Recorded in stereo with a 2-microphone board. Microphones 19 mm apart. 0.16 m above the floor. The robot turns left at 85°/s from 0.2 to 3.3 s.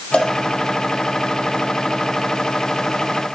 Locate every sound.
0.1 s a cowbell: 75° left (ahead or behind), 4.5 m; by 0.3 s 70° left (ahead or behind), 4.5 m